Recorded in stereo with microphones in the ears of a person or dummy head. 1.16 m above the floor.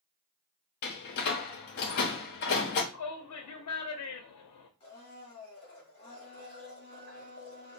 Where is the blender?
30° left (ahead or behind), 1.6 m.